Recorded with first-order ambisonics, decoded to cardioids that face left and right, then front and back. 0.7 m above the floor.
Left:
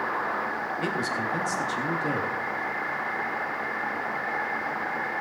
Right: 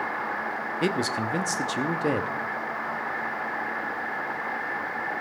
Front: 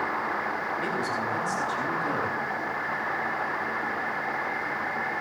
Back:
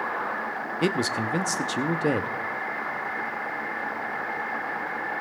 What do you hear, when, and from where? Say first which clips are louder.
0.8 s a man speaking: right 3 dB, back 2 dB; 150° right, 0.8 m